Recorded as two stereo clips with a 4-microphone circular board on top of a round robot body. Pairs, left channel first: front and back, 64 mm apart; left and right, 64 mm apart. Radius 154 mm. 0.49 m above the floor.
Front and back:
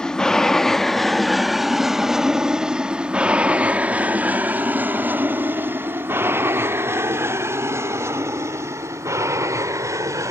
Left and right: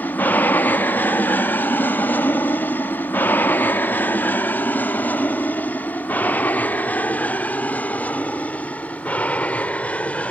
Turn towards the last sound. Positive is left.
turn(degrees=155)